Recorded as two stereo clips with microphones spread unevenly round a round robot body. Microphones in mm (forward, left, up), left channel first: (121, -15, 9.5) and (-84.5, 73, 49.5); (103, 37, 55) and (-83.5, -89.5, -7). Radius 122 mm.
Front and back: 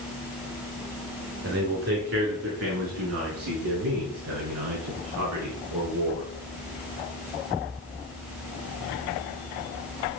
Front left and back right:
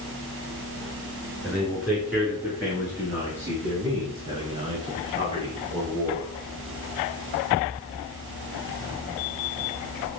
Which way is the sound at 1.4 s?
125° left.